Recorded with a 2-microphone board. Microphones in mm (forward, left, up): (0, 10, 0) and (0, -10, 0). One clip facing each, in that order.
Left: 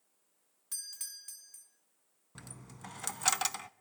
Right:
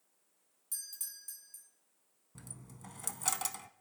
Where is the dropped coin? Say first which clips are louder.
Left 3 dB; 35° left (ahead or behind), 0.5 m.